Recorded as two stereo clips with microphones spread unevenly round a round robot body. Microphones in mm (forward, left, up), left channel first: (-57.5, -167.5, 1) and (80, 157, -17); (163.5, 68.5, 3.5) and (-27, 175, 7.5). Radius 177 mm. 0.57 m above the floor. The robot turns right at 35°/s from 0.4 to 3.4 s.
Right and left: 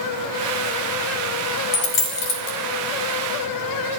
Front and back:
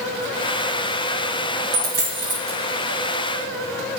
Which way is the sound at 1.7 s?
160° right.